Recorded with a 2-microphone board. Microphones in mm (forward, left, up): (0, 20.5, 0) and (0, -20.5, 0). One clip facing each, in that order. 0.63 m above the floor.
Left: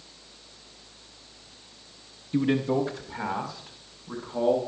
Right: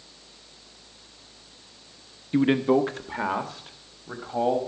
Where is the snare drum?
No snare drum in this recording.